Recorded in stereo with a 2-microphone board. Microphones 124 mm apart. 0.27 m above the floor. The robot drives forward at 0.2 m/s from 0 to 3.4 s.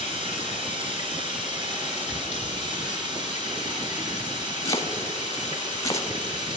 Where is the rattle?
25° right (ahead or behind), 4 m.